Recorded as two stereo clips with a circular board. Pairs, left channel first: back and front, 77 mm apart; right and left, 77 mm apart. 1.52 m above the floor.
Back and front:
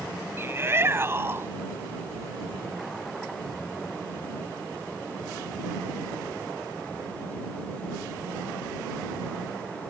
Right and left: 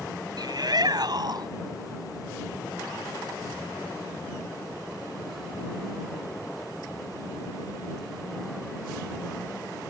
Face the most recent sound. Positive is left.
turn(degrees=60)